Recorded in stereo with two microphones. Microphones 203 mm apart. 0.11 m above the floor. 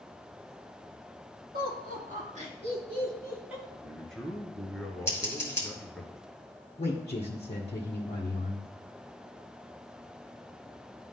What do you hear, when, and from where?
1.5 s laughter: 50° right (ahead or behind), 2.5 m; by 3.6 s 5° right (ahead or behind), 1.7 m
3.7 s a man speaking: 5° left (ahead or behind), 1.3 m
5.1 s scissors: 15° left (ahead or behind), 2 m
6.8 s a man speaking: 35° left (ahead or behind), 1.3 m